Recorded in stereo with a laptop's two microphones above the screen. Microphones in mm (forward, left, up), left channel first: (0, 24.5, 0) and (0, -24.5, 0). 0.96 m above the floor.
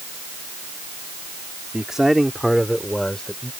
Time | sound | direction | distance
1.7 | a man speaking | 15° right (ahead or behind) | ?